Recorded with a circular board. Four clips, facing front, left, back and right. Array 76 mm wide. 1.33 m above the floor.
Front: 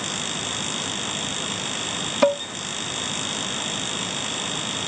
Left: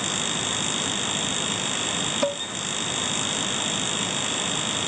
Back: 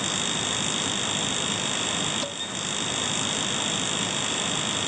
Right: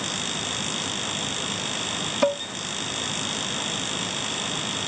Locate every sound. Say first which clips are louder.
2.2 s dishes clattering: right 4 dB, front 15 dB; 15° right